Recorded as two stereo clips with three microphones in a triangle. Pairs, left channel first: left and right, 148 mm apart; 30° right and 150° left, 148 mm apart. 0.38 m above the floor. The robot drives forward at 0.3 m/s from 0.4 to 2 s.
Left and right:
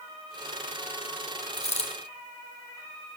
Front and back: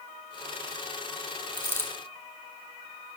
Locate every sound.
1.5 s a dropped coin: 40° left, 2.5 m; by 1.9 s 45° left, 2.5 m